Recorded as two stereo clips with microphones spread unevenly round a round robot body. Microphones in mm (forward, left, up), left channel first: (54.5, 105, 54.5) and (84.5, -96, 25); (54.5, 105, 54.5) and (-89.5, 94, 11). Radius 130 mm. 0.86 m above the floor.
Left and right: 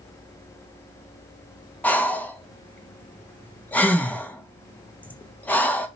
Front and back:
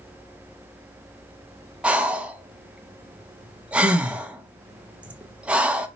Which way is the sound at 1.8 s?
170° right.